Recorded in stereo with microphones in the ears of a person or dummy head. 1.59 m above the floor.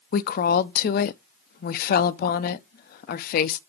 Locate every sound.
0.1 s a woman speaking: 55° left (ahead or behind), 0.8 m